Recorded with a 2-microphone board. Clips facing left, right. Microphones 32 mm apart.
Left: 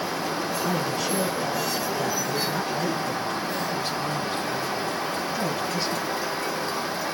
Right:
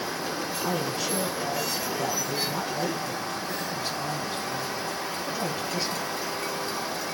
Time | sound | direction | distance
0.6 | a man speaking | 5° right (ahead or behind) | 3.5 m